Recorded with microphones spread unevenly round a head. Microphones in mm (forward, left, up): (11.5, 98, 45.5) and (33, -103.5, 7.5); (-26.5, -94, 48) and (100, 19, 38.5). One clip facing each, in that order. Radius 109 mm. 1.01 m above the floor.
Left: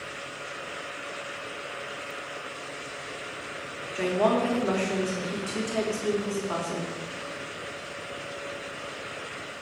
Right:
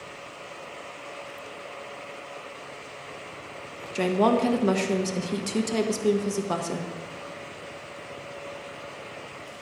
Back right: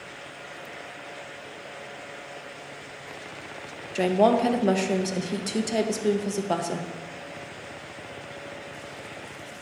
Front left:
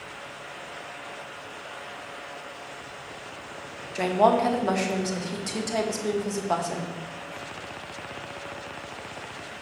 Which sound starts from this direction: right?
A woman speaking, at 4.0 s.